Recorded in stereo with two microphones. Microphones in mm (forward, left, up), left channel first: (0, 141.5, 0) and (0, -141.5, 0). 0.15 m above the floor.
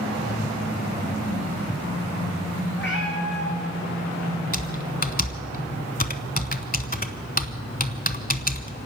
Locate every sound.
2.8 s a cat meowing: 40° left (ahead or behind), 5 m
4.5 s typing on a keyboard: 30° left (ahead or behind), 1.0 m